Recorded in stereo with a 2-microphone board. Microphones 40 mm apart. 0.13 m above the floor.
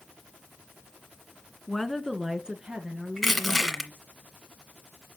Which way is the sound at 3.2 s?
Centre (ahead or behind).